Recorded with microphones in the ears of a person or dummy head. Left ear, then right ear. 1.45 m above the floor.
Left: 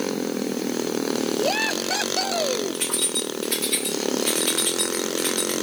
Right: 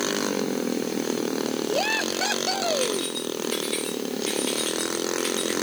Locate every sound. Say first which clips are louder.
2.7 s keys jangling: even; 30° left (ahead or behind), 3 m; by 5.5 s 5° right (ahead or behind), 2.5 m